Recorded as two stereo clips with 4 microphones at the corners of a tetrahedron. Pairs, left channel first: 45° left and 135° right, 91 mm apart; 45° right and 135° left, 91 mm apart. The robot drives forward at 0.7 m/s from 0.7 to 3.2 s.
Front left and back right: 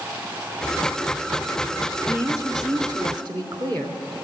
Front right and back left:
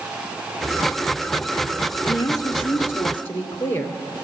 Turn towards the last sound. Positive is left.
turn(degrees=-110)